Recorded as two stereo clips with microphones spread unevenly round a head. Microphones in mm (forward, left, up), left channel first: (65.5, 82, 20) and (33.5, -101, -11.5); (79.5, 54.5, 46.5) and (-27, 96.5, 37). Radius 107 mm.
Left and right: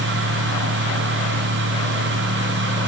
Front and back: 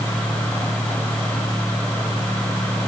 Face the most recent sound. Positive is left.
No sound to turn to.